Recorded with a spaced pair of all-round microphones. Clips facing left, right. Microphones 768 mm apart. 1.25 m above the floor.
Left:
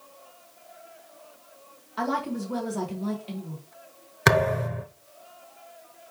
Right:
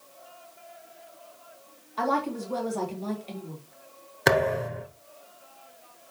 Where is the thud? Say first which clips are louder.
Even; 40° left (ahead or behind), 1.5 m.